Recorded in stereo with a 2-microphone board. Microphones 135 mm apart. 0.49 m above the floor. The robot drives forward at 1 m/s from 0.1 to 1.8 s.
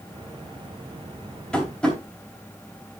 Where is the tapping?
5° left (ahead or behind), 3 m.